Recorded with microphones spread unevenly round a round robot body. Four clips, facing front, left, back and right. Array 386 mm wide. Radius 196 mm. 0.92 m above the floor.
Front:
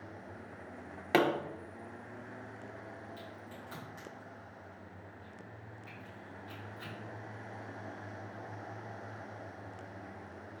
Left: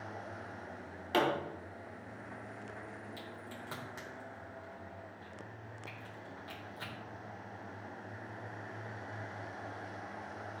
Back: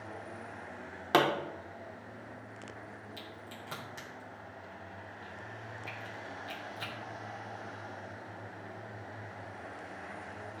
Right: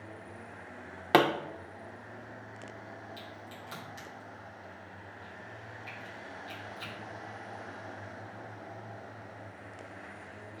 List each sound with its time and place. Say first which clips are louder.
1.1 s a pop: right 7 dB, back 1 dB; 100° right, 0.7 m
3.2 s a crack: right 1 dB, back 1 dB; 135° left, 3 m